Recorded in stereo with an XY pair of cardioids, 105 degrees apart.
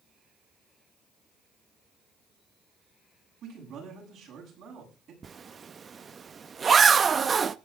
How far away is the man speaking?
About 8.5 m.